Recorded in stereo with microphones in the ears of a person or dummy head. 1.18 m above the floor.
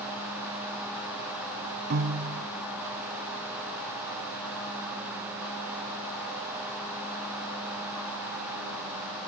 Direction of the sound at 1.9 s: 50° right (ahead or behind).